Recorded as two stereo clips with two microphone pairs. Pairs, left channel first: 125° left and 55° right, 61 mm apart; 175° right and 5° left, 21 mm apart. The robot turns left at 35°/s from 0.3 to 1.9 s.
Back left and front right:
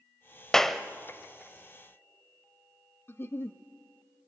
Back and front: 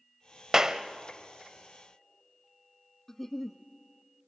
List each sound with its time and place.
0.5 s a clap: 45° left, 0.9 m; by 0.8 s 35° left, 0.9 m
3.1 s a giggle: 135° left, 0.6 m